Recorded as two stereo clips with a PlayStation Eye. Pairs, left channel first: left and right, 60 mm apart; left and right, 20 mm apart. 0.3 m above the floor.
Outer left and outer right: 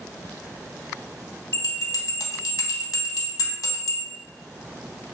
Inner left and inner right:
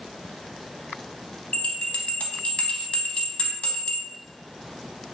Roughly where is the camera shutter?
No camera shutter in this recording.